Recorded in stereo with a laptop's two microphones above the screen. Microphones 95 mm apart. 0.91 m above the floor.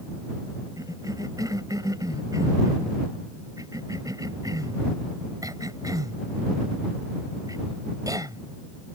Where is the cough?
40° right (ahead or behind).